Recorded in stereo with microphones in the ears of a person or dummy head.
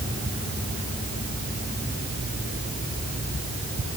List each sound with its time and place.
Only background noise.